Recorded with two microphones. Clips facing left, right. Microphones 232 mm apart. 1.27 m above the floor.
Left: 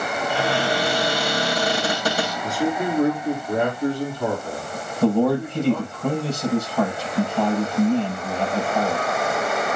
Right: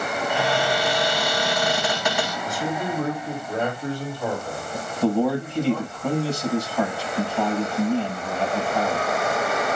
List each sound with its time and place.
0.3 s a cupboard door: 40° left (ahead or behind), 7 m
2.4 s a man speaking: 65° left (ahead or behind), 3.5 m
5.0 s a man speaking: 65° left (ahead or behind), 7 m